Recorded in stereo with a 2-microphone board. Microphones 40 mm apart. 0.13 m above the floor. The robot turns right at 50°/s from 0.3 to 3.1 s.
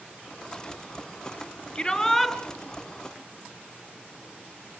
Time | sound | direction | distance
1.8 | a shout | 155° left | 2 m